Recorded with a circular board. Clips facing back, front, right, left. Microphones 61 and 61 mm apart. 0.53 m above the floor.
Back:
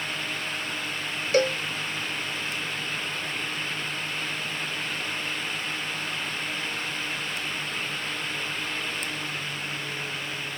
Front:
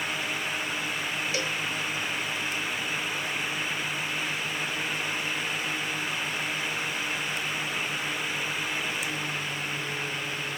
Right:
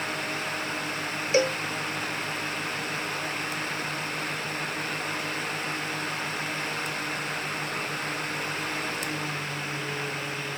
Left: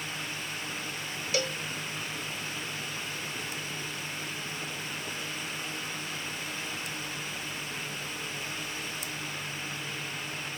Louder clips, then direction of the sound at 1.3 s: Back 13 dB, right 9 dB; 145° right.